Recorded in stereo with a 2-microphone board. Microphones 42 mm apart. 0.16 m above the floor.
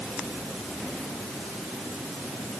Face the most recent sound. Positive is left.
No sound to turn to.